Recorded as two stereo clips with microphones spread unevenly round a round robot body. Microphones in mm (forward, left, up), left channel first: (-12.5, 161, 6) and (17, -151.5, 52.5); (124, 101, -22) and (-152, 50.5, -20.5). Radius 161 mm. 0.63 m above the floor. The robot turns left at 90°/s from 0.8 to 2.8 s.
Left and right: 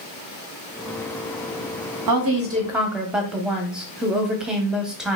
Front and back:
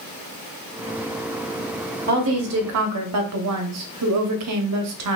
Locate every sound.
2.1 s a woman speaking: 110° right, 0.9 m; by 5.2 s 175° right, 0.9 m